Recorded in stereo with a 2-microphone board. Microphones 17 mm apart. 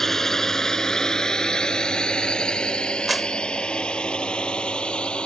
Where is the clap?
10° right (ahead or behind).